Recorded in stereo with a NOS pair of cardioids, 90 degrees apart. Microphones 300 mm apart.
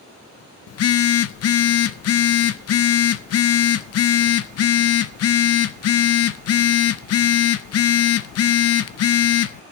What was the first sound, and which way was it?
A phone buzzing, 55° left.